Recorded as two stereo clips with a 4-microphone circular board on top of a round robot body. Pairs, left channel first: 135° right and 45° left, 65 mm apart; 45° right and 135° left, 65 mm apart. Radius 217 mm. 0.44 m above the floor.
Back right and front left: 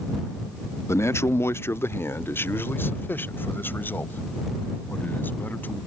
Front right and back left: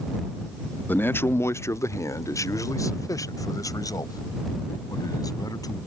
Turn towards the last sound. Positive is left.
turn(degrees=-70)